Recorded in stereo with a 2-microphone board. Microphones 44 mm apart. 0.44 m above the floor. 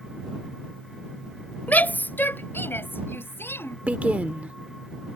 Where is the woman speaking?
30° right (ahead or behind).